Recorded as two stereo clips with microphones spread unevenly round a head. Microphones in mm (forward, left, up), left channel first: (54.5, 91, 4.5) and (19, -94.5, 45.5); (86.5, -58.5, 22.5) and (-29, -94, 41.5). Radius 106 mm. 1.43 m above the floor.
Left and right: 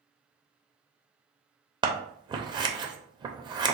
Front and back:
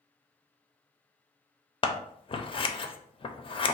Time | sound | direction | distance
1.8 | scissors | 35° right | 0.5 m